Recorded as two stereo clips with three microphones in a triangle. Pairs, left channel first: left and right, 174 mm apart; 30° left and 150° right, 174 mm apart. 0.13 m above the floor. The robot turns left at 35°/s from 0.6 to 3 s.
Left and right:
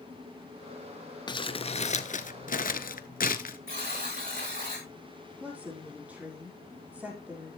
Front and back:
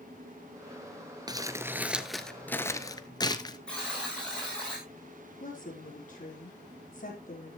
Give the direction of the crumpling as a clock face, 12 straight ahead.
7 o'clock.